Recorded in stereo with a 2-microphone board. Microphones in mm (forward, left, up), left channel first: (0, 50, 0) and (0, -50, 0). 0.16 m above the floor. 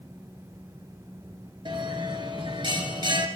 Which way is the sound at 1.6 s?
50° right (ahead or behind).